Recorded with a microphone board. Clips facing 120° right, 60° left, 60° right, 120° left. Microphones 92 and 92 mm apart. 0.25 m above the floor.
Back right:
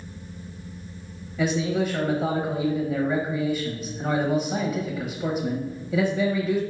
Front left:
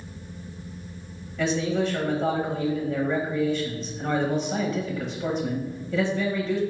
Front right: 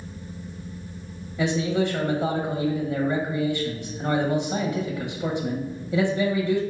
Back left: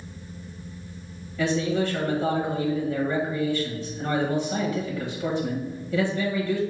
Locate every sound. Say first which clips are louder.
1.4 s a man speaking: back right 1 dB, front right 1 dB; 55° right, 0.9 m